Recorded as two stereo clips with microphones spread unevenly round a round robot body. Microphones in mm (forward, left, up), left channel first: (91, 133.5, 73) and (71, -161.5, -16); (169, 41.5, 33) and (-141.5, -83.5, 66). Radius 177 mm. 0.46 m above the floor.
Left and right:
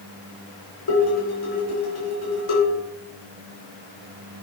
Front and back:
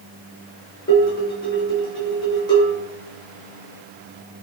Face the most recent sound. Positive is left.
turn(degrees=100)